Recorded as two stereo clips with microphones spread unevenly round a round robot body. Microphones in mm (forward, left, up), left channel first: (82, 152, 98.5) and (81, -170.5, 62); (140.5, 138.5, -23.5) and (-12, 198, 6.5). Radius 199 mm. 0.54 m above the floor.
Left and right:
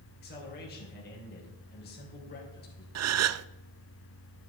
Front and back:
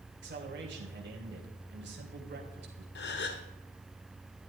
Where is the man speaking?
155° left, 3 m.